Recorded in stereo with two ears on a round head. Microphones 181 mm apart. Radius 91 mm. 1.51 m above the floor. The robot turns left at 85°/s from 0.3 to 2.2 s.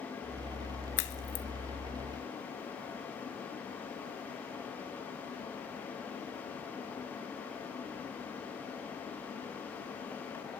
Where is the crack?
55° left (ahead or behind), 2 m; by 1.4 s 75° left (ahead or behind), 2 m.